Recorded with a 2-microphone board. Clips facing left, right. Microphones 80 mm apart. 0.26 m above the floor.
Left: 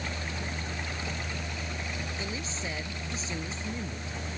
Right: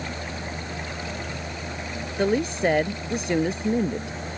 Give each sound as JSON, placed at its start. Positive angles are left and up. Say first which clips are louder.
{"t": 2.2, "sound": "a woman speaking", "louder": "right 14 dB", "side_deg": -65}